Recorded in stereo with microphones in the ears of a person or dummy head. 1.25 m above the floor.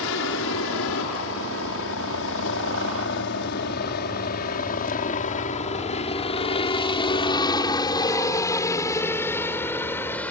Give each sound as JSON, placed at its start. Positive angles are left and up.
{"t": 0.0, "sound": "a helicopter", "side_deg": 70}